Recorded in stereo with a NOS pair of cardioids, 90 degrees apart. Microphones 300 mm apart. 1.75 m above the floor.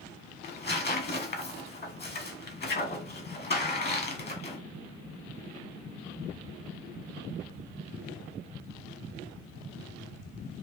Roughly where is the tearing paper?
Ahead left.